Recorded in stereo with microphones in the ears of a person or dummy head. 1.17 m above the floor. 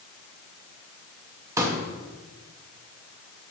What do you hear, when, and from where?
1.6 s a pop: 20° right (ahead or behind), 0.8 m